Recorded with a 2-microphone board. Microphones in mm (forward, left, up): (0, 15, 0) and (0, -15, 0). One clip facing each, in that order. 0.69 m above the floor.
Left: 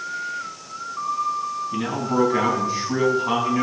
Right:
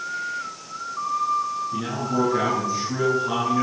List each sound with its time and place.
1.7 s a man speaking: 45° left (ahead or behind), 5 m